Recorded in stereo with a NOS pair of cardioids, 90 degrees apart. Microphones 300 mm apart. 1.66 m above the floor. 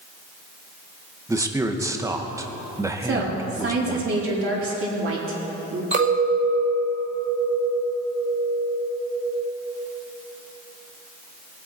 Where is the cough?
I don't hear a cough.